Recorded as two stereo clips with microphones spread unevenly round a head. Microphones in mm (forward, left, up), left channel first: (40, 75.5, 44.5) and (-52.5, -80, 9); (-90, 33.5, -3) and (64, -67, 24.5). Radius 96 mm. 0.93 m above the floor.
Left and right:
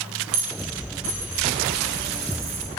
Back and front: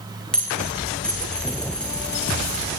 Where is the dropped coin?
125° right, 9 m.